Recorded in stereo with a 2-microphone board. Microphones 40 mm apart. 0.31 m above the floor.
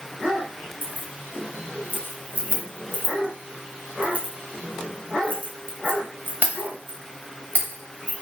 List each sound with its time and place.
0.8 s keys jangling: 45° right (ahead or behind), 0.9 m